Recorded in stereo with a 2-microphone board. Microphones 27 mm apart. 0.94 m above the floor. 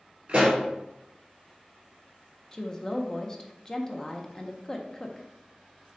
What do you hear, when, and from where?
0.3 s a pop: 40° right (ahead or behind), 2.5 m
2.5 s a woman speaking: 15° left (ahead or behind), 0.6 m